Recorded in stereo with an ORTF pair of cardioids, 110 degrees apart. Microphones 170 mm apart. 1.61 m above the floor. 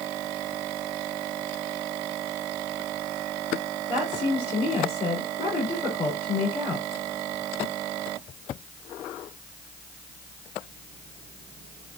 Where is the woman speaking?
35° left, 4.5 m.